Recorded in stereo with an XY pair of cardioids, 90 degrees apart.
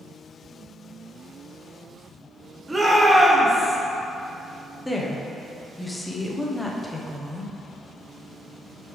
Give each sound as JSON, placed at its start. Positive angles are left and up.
{"t": 2.7, "sound": "a shout", "azimuth_deg": -20, "distance_m": 1.9}
{"t": 4.8, "sound": "a woman speaking", "azimuth_deg": 15, "distance_m": 1.2}